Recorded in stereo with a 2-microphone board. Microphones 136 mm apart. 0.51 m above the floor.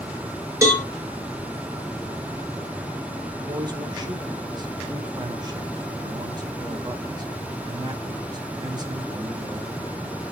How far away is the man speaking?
About 1.5 m.